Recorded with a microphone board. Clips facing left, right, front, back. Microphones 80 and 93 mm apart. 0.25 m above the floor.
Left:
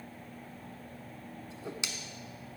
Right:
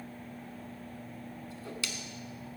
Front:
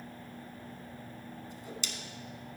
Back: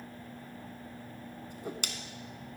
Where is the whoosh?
155° left, 0.8 m.